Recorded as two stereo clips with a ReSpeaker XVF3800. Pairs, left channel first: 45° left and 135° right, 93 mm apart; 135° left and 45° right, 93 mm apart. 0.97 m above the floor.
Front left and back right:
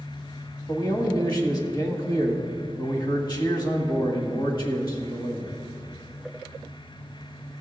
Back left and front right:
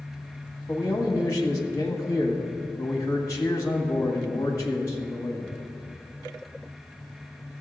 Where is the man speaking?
80° left, 1.6 m.